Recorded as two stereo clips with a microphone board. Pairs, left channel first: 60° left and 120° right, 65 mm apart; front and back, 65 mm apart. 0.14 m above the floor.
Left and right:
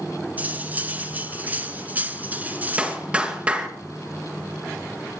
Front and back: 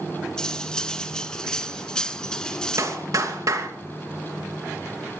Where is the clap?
170° left, 2.5 m.